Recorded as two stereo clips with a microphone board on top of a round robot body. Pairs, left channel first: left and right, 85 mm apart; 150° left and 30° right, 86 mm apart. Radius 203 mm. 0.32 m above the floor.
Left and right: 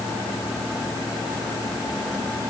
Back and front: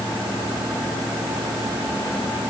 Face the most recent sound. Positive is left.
No sound to turn to.